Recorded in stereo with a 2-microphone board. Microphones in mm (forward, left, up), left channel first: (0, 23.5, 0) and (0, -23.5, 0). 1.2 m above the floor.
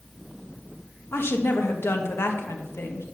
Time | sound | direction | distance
1.1 | a woman speaking | 55° left (ahead or behind) | 1.2 m